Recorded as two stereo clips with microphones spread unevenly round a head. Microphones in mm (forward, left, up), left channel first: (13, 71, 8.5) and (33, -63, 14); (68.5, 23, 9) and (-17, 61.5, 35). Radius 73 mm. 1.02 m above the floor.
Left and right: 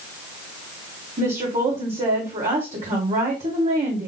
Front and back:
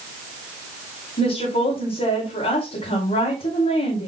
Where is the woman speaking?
40° right, 2.5 m.